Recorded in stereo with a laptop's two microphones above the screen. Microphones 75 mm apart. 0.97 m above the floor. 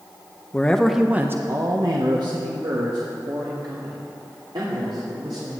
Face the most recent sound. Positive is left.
turn(degrees=-80)